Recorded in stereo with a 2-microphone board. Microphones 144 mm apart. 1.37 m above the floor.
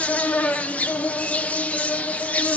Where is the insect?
10° left (ahead or behind), 0.8 m.